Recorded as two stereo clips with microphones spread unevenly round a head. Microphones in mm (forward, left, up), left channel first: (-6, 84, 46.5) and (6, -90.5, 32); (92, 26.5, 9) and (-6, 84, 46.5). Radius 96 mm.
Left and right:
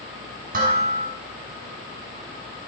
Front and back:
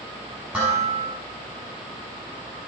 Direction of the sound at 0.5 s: 125° right.